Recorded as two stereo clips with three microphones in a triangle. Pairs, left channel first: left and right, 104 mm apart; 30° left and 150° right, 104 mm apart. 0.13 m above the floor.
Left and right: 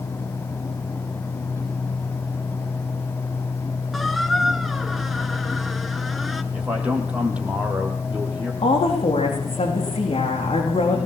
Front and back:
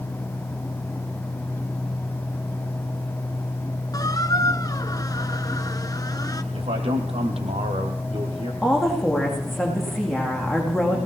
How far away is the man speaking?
About 4.5 m.